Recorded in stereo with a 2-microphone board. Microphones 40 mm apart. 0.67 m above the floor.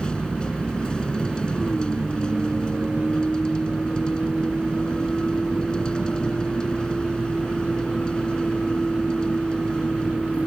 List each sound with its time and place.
0.0 s a vehicle: 25° left (ahead or behind)